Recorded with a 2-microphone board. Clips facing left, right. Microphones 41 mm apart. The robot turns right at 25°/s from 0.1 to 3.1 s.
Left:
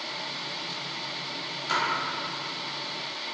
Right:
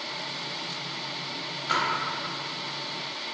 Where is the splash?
10° right (ahead or behind), 0.6 m.